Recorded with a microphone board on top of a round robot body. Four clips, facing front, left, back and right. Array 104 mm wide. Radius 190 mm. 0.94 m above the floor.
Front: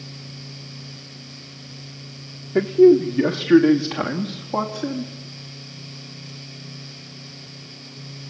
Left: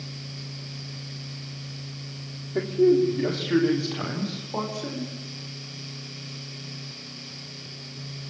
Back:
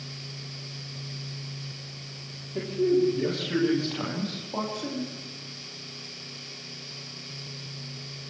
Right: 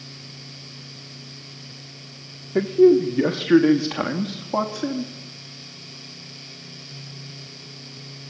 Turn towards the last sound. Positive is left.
turn(degrees=-65)